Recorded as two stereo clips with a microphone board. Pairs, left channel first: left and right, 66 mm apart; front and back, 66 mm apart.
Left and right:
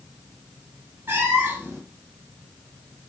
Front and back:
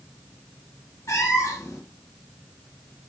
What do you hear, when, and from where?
1.1 s a cat meowing: 40° right, 1.0 m